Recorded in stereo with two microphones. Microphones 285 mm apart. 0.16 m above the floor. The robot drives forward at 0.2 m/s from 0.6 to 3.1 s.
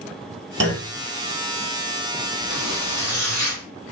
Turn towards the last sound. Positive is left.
turn(degrees=40)  # may be behind; listen again after turning